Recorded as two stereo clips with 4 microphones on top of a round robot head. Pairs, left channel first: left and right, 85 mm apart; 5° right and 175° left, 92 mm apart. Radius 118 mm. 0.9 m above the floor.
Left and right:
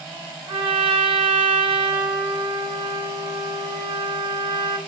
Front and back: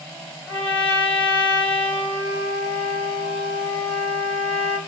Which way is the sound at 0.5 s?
80° right.